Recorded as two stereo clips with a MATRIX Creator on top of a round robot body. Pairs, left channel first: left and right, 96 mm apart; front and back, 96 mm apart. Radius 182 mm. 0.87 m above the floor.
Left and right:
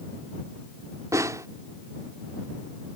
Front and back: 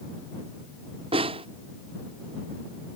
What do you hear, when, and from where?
1.1 s a snare drum: 150° right